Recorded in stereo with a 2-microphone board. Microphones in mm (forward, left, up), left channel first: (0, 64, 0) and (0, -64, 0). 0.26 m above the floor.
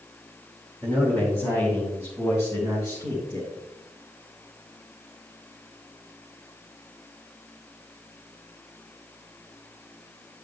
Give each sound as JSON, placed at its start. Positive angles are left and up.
{"t": 0.8, "sound": "a man speaking", "side_deg": 10, "distance_m": 2.5}